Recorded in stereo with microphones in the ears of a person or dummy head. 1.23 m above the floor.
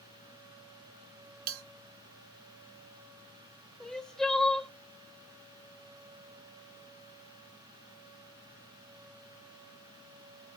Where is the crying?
5° left (ahead or behind), 0.7 m.